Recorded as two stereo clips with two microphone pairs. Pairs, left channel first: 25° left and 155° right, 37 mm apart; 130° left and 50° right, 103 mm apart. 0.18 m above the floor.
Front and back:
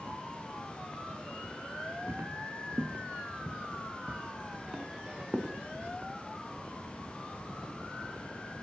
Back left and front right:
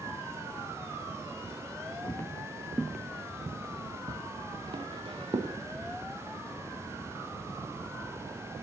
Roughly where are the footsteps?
Behind.